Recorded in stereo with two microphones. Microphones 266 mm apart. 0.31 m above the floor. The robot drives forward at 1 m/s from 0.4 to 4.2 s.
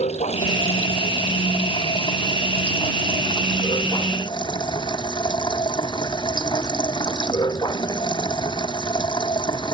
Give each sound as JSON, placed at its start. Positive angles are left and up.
{"t": 0.0, "sound": "running water", "side_deg": 25}